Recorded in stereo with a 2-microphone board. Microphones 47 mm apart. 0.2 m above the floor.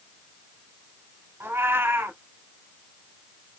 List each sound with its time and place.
1.4 s a cat meowing: 50° right (ahead or behind), 1.0 m